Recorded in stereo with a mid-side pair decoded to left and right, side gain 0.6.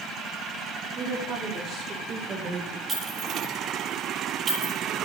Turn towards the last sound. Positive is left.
turn(degrees=-35)